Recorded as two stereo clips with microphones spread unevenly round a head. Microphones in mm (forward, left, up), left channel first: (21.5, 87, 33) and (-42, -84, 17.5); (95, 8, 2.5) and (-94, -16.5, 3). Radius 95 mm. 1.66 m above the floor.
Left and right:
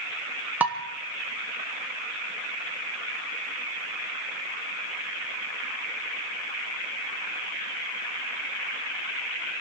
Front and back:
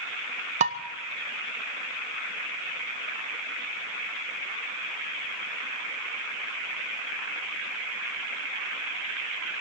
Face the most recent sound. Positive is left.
turn(degrees=170)